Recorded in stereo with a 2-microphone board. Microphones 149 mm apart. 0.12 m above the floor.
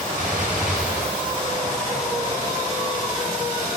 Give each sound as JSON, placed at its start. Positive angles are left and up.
{"t": 0.2, "sound": "a gunshot", "side_deg": -60, "distance_m": 6.5}